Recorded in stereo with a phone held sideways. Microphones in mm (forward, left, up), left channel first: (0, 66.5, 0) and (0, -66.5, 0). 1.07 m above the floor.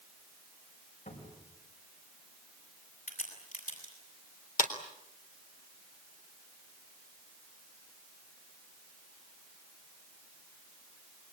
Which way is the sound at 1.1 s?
85° left.